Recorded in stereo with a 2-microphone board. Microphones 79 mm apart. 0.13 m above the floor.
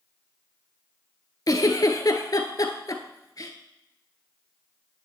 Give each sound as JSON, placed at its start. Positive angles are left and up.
{"t": 1.5, "sound": "a giggle", "side_deg": 50, "distance_m": 1.1}